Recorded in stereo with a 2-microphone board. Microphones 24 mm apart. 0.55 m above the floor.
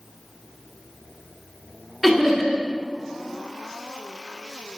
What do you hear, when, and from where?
2.0 s laughter: centre (ahead or behind), 0.7 m